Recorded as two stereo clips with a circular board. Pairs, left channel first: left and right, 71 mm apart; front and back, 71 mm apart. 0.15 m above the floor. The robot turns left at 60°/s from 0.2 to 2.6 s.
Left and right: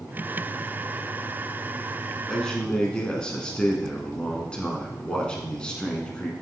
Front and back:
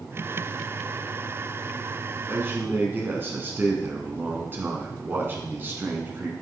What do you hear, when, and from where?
2.3 s a man speaking: 175° left, 1.4 m; by 6.3 s 155° left, 1.4 m